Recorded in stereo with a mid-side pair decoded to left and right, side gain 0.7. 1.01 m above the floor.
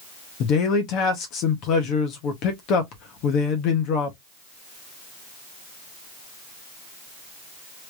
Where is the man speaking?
60° left, 1.2 m.